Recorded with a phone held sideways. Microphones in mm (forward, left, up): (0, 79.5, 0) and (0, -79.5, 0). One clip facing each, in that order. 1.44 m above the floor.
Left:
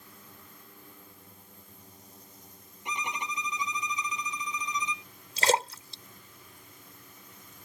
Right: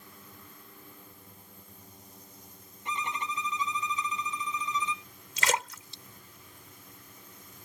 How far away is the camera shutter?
I don't hear a camera shutter.